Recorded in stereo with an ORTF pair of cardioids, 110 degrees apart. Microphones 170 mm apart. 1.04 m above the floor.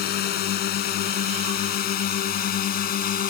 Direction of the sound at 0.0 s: 70° left.